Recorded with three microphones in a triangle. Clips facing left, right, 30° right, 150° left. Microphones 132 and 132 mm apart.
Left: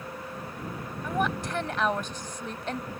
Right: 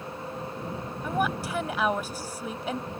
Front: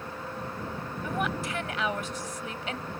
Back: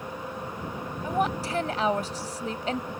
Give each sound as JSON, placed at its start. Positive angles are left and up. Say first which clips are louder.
{"t": 1.0, "sound": "a woman speaking", "louder": "right 1 dB, back 5 dB", "azimuth_deg": -170}